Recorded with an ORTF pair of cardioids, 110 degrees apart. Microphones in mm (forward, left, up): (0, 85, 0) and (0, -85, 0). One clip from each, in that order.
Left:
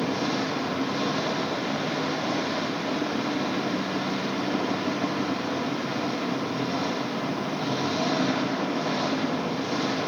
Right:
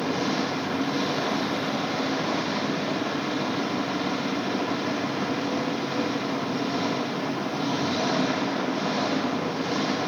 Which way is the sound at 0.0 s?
5° right.